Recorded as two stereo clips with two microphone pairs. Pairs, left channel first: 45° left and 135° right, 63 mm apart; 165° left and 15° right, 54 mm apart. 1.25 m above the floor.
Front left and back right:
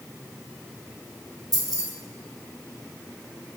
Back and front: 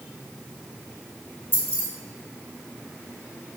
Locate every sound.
1.5 s keys jangling: 150° right, 2 m